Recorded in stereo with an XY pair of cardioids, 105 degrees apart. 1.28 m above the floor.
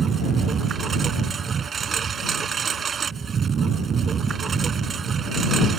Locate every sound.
0.0 s a lawn mower: 45° right